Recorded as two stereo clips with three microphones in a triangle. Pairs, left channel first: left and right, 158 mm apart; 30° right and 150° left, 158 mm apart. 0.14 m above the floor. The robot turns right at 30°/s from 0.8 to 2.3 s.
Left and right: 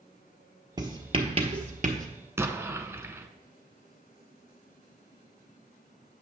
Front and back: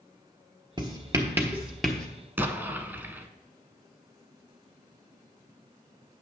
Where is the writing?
150° right, 1.0 m; by 2.1 s 115° right, 1.0 m.